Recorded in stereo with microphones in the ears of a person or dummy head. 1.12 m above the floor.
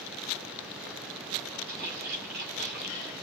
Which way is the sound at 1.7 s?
50° right (ahead or behind).